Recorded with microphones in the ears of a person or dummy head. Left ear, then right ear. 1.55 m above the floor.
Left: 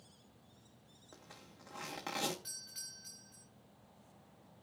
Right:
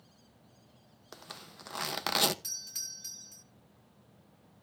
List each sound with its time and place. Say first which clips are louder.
1.1 s a zipper: right 10 dB; 55° right (ahead or behind), 0.8 m
2.4 s a doorbell: right 8 dB; 75° right (ahead or behind), 1.9 m